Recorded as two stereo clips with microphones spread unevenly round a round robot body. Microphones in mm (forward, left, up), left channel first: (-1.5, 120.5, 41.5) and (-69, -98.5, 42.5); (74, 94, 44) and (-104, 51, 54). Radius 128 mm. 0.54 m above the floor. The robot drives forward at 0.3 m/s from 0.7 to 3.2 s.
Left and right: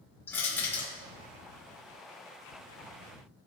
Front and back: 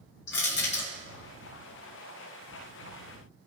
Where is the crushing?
10° right, 3 m.